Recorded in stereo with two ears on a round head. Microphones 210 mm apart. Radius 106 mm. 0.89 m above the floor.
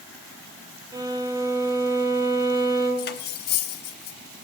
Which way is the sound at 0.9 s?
15° right (ahead or behind).